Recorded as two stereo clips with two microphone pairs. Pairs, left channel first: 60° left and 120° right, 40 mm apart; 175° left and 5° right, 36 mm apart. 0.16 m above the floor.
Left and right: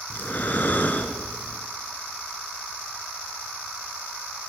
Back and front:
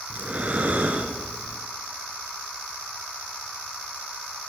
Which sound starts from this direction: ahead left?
Breathing, at 0.1 s.